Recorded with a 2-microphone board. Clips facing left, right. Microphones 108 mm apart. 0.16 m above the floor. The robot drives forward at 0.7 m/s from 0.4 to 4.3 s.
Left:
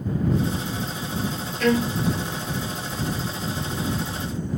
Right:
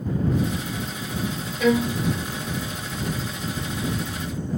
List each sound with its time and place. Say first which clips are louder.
1.6 s a violin: right 1 dB; 5° right (ahead or behind)